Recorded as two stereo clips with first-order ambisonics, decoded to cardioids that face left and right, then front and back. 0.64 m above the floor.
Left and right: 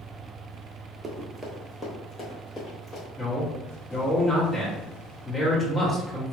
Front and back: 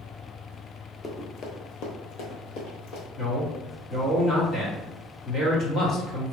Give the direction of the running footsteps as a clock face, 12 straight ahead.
2 o'clock.